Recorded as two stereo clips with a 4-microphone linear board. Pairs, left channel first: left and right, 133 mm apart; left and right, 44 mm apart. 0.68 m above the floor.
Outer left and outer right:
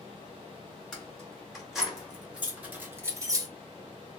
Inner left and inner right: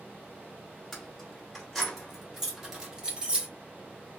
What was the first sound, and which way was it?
Keys jangling, 5° left (ahead or behind).